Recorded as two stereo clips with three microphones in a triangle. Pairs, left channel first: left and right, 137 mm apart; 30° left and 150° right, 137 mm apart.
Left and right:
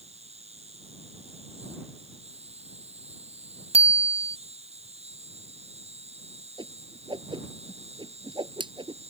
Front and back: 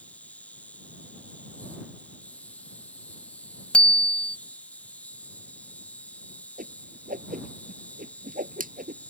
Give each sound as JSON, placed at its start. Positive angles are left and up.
{"t": 0.0, "sound": "an insect", "azimuth_deg": -50}
{"t": 3.7, "sound": "a bicycle bell", "azimuth_deg": -50}
{"t": 6.6, "sound": "a whoosh", "azimuth_deg": -145}